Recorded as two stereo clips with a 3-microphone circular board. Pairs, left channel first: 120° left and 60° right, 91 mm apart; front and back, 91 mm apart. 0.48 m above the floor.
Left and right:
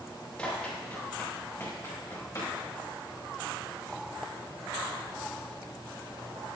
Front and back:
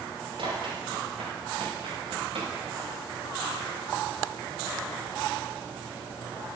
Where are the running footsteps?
160° right, 5 m; by 2.5 s 170° left, 5.5 m.